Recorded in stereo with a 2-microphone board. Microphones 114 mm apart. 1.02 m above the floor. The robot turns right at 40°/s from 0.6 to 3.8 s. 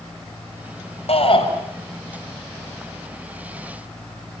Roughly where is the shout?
Left.